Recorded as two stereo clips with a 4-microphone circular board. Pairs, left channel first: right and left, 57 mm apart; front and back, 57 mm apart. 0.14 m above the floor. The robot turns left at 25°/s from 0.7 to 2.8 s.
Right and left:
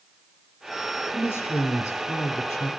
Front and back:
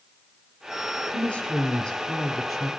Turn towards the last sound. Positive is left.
turn(degrees=-100)